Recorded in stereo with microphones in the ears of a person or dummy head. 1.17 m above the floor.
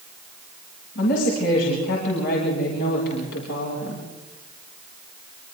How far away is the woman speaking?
About 7.5 m.